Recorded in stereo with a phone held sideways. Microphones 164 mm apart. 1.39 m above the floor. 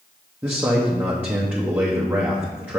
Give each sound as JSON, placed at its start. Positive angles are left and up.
{"t": 0.4, "sound": "a man speaking", "side_deg": -10, "distance_m": 0.9}